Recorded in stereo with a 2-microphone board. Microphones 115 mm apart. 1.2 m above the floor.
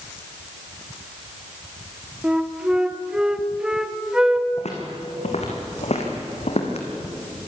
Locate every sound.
2.2 s a flute: 5° right (ahead or behind), 1.1 m
4.6 s footsteps: 70° left (ahead or behind), 3.5 m; by 6.9 s 65° left (ahead or behind), 3 m